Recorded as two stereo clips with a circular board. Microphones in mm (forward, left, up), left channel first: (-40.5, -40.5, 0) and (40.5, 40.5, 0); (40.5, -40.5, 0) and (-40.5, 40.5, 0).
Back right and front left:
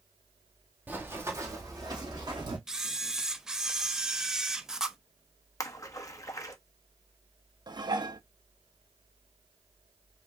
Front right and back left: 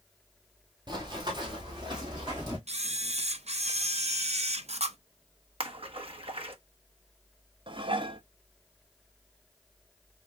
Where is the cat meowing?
I don't hear a cat meowing.